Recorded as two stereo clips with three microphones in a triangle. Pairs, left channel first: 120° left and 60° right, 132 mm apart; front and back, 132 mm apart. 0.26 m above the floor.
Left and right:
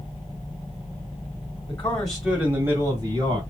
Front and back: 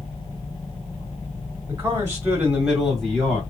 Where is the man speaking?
175° left, 1.7 m; by 3.4 s 75° right, 1.9 m.